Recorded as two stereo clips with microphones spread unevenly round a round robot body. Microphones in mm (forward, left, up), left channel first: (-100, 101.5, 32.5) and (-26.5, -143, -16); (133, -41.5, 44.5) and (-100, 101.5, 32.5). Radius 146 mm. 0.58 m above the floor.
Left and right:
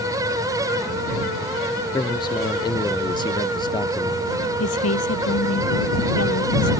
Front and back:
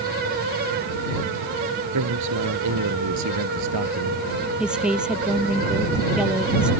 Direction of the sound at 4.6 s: 60° left.